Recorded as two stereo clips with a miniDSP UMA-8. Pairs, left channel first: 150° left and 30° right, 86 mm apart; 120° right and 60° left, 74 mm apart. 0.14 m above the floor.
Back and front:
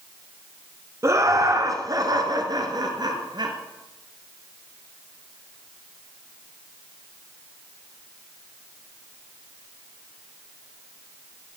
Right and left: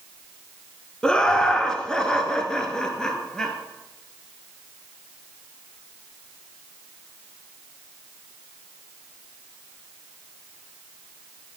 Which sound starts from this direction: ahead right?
Laughter, at 1.0 s.